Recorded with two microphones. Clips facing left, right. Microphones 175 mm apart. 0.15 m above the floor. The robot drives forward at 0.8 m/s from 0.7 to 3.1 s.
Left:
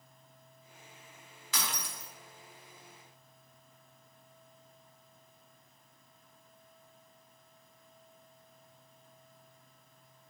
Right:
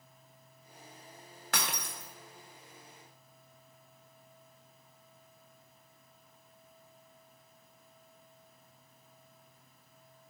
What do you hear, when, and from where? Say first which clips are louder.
1.5 s breaking glass: right 2 dB; 60° right (ahead or behind), 2 m; by 2.1 s 55° right (ahead or behind), 2.5 m